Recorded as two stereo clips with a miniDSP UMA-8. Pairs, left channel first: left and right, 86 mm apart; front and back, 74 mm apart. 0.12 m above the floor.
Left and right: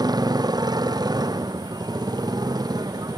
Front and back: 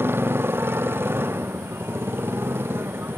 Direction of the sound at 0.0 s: 125° right.